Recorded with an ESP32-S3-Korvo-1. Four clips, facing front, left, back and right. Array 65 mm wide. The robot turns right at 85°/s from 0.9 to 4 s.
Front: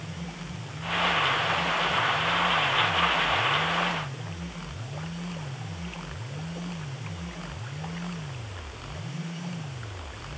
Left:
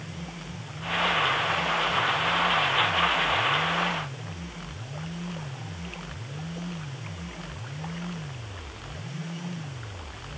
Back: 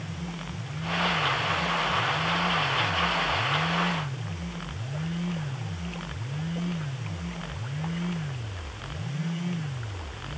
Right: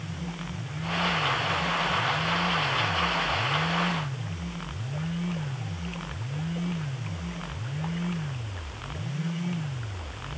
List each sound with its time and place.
Only background noise.